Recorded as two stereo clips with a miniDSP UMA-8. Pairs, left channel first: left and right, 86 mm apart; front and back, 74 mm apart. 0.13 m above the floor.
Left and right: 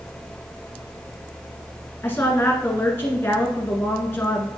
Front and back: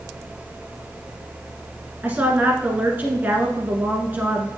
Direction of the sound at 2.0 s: 135° left.